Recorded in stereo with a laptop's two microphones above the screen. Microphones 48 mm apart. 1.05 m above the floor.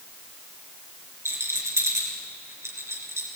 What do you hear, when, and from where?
1.2 s a rattle: 70° right (ahead or behind), 3.5 m